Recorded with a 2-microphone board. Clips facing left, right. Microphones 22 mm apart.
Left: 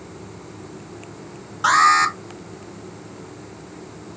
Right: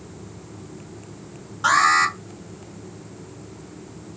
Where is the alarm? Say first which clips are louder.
Left 2 dB; 15° left (ahead or behind), 1.6 m.